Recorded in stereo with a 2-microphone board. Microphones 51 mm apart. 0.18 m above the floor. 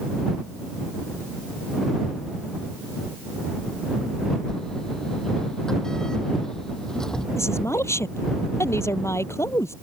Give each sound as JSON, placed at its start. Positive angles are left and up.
{"t": 4.5, "sound": "a sliding door", "side_deg": 10}
{"t": 7.4, "sound": "a woman speaking", "side_deg": 65}